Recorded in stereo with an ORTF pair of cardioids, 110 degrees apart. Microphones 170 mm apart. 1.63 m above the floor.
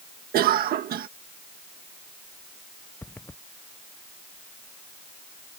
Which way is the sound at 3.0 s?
10° left.